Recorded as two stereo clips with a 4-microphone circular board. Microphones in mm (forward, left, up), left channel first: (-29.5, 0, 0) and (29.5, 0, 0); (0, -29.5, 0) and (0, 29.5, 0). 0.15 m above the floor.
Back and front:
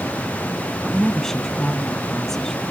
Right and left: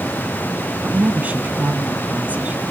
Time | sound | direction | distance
0.8 | a woman speaking | 105° left | 1.4 m